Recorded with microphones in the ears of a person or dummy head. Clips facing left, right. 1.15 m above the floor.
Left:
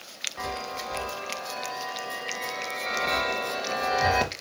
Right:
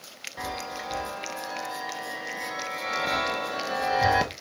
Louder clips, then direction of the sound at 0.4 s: Left 1 dB; 15° right (ahead or behind).